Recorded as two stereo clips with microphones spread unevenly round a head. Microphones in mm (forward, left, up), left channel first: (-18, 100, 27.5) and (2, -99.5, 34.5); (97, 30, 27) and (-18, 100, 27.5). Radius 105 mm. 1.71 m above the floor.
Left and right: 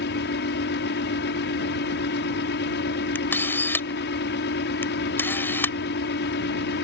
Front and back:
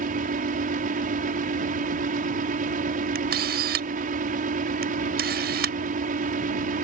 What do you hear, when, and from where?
0.0 s a fan: 135° left
3.1 s a camera shutter: 175° left